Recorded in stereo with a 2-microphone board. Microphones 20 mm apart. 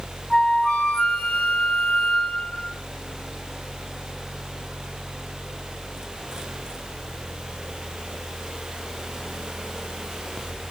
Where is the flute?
45° left (ahead or behind), 1.7 m.